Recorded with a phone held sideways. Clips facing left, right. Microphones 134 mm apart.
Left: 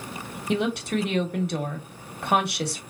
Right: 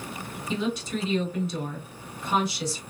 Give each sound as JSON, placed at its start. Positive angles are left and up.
{"t": 0.5, "sound": "a woman speaking", "side_deg": 65, "distance_m": 1.0}